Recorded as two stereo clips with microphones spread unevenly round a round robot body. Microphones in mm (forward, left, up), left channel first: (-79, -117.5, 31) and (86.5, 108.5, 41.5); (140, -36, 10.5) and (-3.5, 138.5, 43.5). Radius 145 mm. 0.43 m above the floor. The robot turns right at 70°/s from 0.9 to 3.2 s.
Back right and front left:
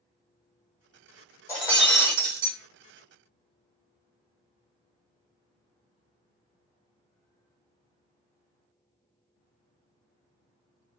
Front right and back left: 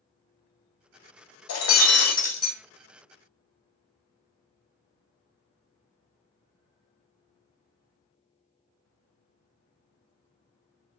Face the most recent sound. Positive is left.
turn(degrees=75)